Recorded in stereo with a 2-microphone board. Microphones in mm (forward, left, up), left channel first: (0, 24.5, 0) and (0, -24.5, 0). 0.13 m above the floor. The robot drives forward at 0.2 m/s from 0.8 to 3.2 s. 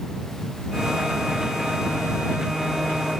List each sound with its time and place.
Only background noise.